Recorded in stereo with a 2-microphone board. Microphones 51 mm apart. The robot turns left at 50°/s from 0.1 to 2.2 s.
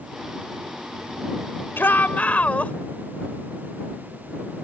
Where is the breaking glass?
No breaking glass in this recording.